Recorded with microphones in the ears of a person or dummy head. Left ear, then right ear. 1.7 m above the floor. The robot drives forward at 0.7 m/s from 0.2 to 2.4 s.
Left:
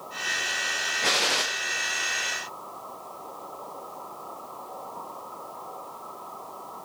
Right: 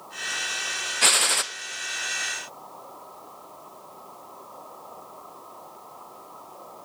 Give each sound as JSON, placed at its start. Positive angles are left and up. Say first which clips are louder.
{"t": 1.0, "sound": "a gunshot", "louder": "right 4 dB", "side_deg": -60, "distance_m": 0.5}